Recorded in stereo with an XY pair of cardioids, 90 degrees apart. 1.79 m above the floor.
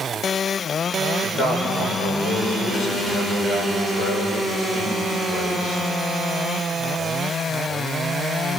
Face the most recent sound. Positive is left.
turn(degrees=70)